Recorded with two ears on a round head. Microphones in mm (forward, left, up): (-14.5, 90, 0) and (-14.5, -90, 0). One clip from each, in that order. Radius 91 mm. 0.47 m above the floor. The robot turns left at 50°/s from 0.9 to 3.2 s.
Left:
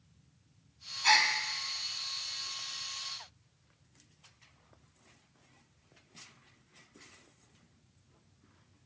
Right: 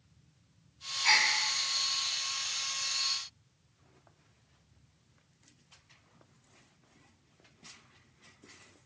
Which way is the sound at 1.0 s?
25° left (ahead or behind).